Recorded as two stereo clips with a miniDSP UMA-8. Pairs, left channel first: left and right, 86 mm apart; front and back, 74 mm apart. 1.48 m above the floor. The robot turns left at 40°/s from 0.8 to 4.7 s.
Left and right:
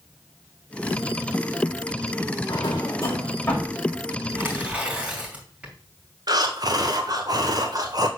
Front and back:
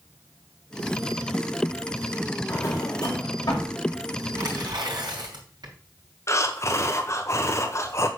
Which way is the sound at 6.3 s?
50° right.